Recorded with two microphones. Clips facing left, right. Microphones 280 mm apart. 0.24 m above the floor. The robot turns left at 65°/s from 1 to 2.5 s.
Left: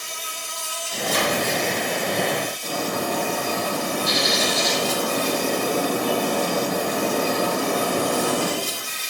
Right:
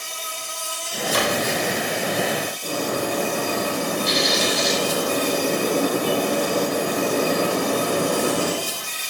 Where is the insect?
35° right, 1.4 m; by 9.1 s 130° right, 1.4 m.